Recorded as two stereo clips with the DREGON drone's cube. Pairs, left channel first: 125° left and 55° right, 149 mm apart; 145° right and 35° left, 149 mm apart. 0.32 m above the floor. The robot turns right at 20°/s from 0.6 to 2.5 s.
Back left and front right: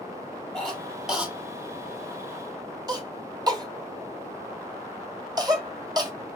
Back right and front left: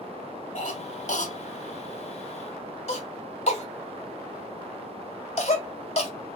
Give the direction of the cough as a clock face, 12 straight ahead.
5 o'clock.